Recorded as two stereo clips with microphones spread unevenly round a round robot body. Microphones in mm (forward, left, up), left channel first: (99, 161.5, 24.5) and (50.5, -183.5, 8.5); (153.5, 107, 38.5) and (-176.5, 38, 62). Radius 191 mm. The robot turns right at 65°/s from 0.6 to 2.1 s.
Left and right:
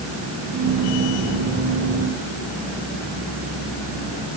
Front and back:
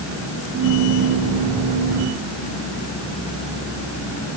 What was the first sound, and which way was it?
Only background noise.